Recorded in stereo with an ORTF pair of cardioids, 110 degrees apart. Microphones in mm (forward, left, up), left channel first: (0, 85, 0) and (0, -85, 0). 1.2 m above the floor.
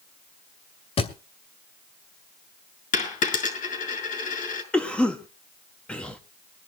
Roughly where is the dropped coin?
Ahead left.